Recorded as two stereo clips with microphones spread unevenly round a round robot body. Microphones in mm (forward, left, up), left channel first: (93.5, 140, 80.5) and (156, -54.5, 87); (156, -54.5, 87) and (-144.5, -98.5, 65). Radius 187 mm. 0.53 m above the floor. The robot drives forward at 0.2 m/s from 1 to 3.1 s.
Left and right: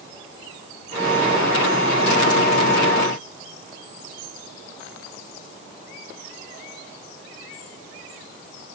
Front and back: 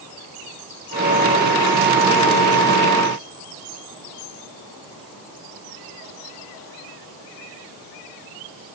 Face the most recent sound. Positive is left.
No sound to turn to.